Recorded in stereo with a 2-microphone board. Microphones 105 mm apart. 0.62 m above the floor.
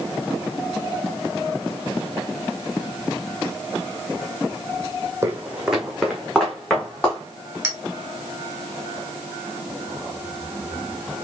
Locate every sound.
5.2 s footsteps: 25° right (ahead or behind), 1.0 m; by 7.2 s 15° left (ahead or behind), 2.5 m
7.6 s a clink: 20° right (ahead or behind), 1.3 m